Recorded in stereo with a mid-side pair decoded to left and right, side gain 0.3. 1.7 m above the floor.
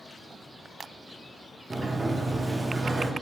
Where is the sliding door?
35° right, 0.7 m.